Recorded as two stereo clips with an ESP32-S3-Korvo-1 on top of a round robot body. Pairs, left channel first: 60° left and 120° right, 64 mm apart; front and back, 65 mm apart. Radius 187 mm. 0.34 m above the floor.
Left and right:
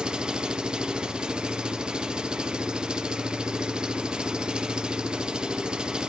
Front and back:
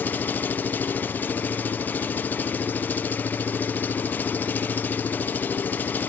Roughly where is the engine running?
Ahead right.